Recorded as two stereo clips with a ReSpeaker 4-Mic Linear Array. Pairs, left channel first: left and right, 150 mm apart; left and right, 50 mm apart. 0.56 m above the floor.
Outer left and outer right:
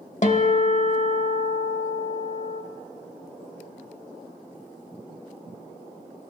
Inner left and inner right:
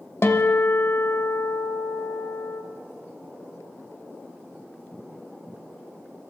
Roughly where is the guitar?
Left.